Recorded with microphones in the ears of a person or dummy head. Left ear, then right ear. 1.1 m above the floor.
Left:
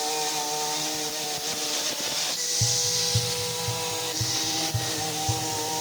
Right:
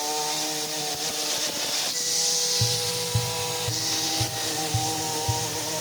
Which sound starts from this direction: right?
Tapping, at 2.6 s.